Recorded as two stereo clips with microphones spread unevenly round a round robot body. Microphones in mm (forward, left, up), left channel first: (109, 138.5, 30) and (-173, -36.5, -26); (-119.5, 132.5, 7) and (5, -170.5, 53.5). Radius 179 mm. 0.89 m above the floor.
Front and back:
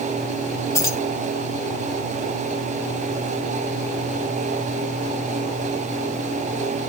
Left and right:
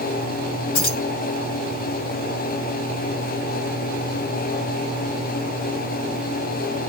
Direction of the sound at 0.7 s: 115° left.